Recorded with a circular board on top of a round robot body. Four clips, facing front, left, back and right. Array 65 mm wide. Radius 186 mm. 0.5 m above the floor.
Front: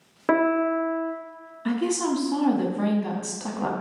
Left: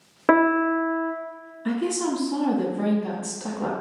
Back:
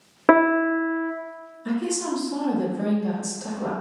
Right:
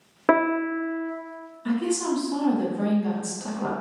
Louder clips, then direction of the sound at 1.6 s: Even, front 2 dB; 5° left.